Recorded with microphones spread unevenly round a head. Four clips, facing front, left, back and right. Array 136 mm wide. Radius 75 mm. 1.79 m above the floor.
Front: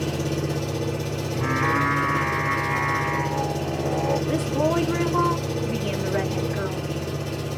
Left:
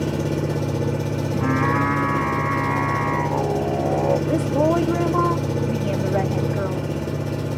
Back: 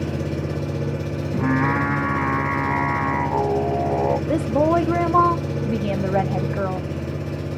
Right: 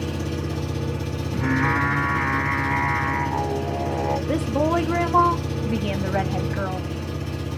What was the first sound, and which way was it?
An engine running, 110° left.